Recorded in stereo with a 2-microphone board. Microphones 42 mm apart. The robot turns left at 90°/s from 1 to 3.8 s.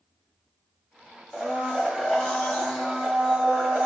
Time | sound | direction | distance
1.3 | a blender | 20° left (ahead or behind) | 1.2 m